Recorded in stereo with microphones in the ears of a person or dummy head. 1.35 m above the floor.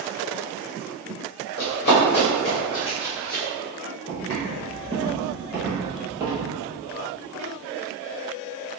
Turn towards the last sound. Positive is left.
turn(degrees=-15)  # may be behind; listen again after turning